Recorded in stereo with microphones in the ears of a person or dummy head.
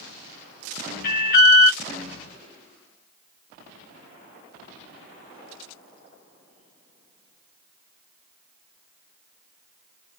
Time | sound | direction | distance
1.0 | an alarm | 45° left (ahead or behind) | 1.0 m